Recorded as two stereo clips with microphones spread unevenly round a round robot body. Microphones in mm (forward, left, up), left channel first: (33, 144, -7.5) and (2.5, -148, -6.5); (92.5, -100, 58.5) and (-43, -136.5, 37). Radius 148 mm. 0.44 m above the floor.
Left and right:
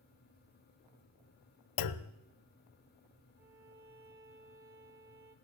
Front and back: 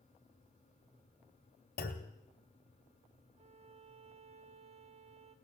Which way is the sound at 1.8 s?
60° left.